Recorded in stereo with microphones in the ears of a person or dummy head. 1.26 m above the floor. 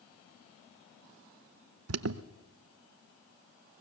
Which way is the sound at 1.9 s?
75° right (ahead or behind).